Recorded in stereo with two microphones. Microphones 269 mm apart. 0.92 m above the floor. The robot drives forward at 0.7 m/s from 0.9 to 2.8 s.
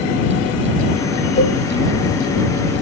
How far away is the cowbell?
About 4.5 m.